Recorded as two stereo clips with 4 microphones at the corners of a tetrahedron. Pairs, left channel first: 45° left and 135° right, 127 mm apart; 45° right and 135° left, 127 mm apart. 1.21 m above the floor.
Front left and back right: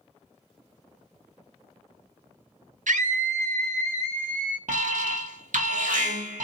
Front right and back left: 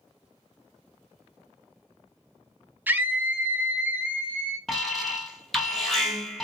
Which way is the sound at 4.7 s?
135° right.